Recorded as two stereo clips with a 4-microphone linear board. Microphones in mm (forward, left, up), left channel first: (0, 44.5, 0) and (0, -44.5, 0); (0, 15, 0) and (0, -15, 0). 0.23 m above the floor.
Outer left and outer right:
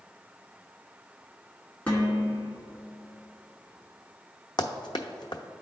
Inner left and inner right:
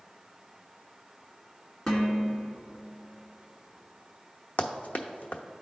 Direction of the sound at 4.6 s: 55° left (ahead or behind).